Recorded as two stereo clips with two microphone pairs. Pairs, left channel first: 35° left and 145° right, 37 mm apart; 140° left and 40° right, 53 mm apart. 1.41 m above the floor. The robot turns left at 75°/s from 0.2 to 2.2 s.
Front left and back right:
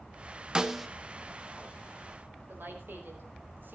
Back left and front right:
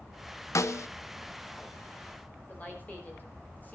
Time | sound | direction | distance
0.6 | a snare drum | 150° left | 0.9 m
2.5 | a woman speaking | 160° right | 5 m